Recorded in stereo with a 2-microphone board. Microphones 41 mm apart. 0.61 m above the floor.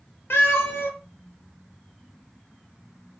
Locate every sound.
0.3 s a cat meowing: 90° left, 0.7 m